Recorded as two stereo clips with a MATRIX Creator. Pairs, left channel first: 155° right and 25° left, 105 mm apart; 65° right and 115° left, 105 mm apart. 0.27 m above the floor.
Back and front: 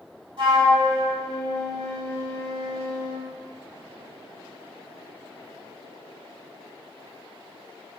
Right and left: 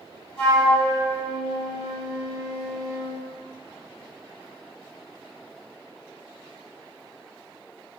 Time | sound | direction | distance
0.4 | a flute | 10° left | 1.8 m